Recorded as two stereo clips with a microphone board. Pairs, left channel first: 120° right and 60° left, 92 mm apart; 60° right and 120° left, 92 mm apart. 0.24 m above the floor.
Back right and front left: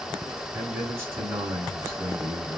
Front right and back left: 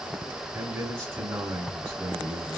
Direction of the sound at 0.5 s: 85° left.